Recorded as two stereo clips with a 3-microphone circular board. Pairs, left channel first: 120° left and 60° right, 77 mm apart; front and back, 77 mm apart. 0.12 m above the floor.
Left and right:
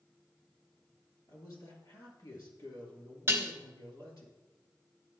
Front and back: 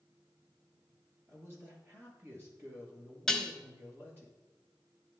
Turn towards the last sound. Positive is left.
turn(degrees=-80)